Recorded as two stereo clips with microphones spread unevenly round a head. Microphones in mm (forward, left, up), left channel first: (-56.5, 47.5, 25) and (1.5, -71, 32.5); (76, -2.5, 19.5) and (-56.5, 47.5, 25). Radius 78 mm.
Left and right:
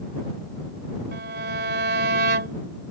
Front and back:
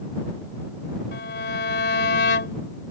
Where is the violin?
50° right.